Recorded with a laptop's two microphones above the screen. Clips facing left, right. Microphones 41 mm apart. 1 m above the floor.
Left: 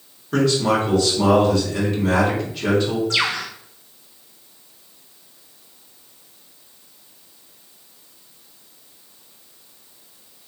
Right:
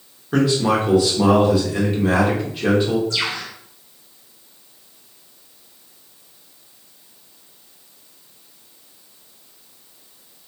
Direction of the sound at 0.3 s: 10° right (ahead or behind).